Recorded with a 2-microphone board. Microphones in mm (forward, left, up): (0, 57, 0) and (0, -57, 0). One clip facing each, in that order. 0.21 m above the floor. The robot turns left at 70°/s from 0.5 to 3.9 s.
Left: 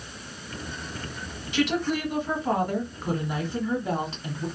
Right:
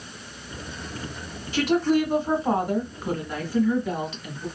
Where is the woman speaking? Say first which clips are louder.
Right 5 dB; 75° right, 1.3 m; by 4.5 s 120° left, 1.3 m.